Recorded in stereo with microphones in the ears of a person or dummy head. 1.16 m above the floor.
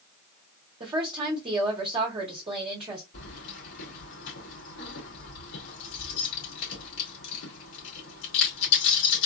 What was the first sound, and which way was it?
A woman speaking, 30° right (ahead or behind).